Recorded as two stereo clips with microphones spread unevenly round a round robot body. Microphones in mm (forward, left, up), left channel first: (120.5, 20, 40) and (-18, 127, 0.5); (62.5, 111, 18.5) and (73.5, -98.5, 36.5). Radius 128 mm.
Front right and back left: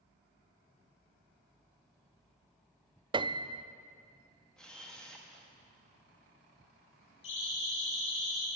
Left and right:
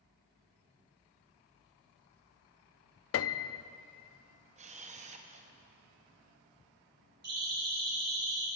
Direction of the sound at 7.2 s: 45° right.